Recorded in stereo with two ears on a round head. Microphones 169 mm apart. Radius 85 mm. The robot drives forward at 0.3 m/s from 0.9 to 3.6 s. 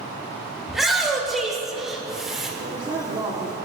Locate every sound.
0.7 s a shout: centre (ahead or behind), 2 m
2.6 s a woman speaking: 25° right (ahead or behind), 1.0 m